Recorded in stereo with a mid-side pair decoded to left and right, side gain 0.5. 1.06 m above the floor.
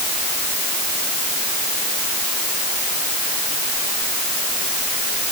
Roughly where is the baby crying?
I don't hear a baby crying.